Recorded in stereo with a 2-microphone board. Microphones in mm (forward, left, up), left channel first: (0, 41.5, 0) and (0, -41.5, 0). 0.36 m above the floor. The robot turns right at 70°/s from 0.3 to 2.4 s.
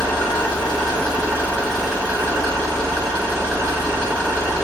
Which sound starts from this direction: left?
An engine running, at 0.0 s.